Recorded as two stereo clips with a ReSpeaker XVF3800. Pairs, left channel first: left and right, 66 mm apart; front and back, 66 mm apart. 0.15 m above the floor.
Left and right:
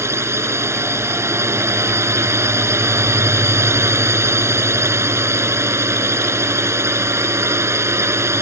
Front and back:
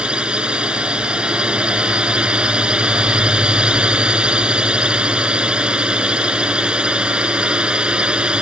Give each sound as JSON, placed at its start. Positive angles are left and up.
{"t": 0.0, "sound": "a drone", "azimuth_deg": -110}